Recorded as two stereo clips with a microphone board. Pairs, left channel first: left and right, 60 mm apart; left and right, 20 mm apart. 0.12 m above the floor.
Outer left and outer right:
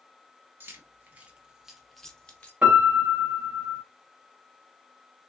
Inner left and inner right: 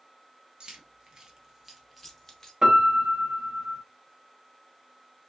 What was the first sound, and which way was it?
Keys jangling, 40° right (ahead or behind).